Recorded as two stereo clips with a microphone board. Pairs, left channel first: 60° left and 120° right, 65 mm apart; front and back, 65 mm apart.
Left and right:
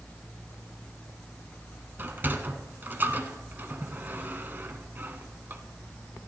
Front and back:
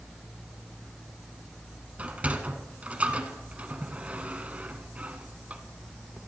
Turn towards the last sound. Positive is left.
turn(degrees=-135)